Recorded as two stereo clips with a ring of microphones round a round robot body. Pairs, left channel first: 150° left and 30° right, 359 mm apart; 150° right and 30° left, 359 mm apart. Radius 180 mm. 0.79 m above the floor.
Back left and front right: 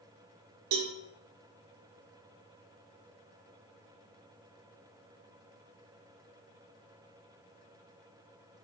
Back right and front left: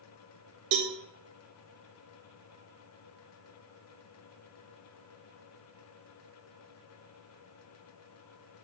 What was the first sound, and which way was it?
A cowbell, 10° right.